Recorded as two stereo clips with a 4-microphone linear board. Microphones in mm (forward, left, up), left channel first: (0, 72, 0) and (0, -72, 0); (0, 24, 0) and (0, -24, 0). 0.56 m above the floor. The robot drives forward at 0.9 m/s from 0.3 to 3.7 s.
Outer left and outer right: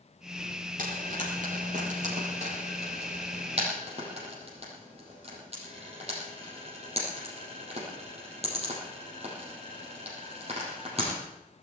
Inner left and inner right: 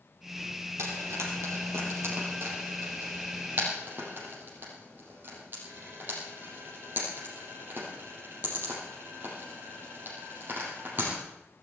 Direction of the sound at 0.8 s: 70° right (ahead or behind).